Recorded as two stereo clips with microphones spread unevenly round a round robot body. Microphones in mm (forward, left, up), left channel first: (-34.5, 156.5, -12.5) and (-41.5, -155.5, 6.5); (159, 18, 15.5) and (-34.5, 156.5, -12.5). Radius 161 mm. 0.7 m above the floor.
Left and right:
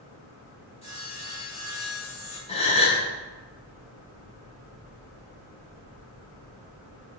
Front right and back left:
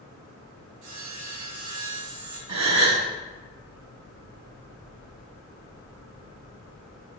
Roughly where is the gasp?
Behind.